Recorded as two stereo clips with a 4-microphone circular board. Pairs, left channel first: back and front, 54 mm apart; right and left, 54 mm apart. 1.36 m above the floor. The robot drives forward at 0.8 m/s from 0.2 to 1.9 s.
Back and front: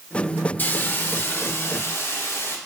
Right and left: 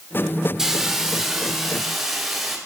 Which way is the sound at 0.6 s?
165° left.